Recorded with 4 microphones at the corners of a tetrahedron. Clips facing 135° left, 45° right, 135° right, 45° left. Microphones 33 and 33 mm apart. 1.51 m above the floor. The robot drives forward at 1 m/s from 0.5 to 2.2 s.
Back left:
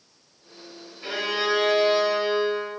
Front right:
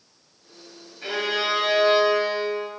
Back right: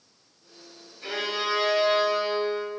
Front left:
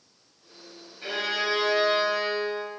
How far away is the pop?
No pop in this recording.